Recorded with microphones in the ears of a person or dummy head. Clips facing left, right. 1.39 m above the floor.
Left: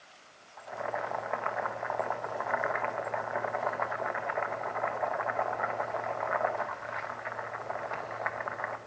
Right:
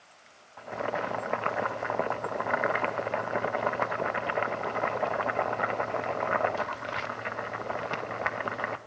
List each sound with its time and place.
0.6 s boiling: 50° right (ahead or behind), 0.5 m